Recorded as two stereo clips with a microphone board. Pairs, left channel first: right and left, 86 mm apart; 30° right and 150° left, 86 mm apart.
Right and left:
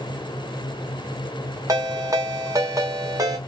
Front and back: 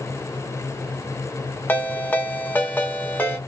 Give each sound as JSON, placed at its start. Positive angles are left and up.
{"t": 1.7, "sound": "a ringtone", "azimuth_deg": 40, "distance_m": 1.0}